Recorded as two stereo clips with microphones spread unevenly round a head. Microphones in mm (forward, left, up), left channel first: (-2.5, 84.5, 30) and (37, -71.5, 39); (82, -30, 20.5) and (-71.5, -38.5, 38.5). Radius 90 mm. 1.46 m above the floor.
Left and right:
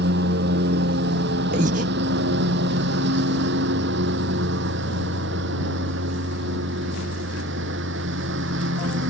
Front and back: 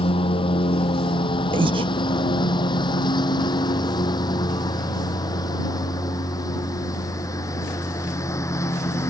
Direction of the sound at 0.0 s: 55° right.